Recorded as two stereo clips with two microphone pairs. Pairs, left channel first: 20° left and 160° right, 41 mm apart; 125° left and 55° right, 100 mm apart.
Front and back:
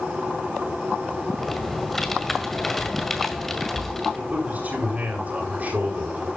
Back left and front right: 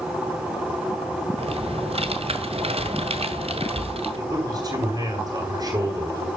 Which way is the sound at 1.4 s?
60° right.